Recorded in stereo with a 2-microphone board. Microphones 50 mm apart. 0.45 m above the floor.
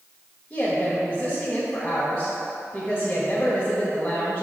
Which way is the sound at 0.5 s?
20° left (ahead or behind).